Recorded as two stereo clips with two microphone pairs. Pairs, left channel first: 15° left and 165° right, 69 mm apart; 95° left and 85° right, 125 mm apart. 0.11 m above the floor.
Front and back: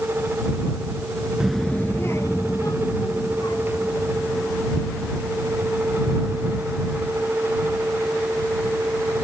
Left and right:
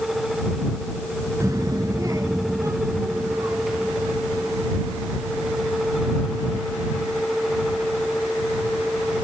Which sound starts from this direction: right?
A child speaking, at 1.4 s.